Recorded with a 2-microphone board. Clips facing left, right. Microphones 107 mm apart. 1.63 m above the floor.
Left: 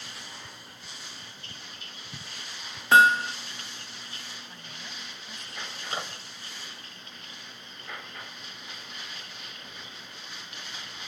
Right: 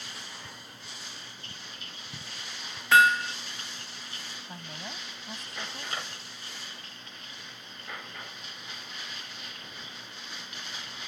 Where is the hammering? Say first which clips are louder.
Left 2 dB; 30° left (ahead or behind).